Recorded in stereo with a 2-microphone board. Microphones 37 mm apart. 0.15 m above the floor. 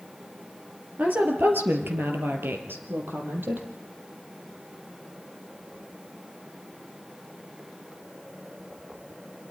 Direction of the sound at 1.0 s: 45° right (ahead or behind).